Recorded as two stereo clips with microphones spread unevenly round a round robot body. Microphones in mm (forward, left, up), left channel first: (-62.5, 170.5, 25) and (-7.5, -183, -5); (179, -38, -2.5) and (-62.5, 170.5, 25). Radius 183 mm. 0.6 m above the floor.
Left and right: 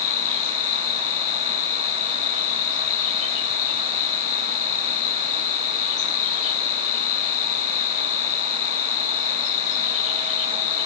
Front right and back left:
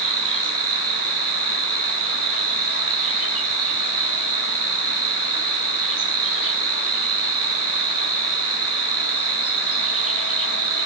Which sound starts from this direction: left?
An insect, at 0.0 s.